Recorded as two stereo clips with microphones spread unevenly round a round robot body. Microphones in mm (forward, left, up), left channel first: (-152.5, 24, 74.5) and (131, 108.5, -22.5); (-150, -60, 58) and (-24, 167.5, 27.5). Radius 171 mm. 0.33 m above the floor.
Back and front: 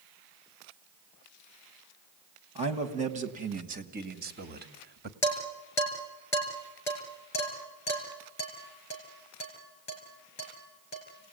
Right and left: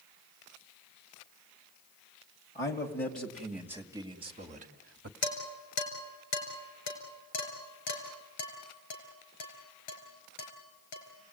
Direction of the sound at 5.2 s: 80° right.